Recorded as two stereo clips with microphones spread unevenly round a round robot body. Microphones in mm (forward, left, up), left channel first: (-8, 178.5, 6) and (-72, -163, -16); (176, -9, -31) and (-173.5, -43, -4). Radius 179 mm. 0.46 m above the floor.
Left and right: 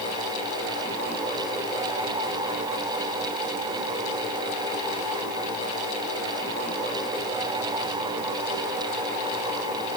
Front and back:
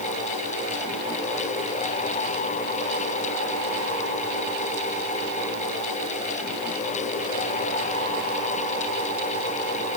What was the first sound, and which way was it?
Only background noise.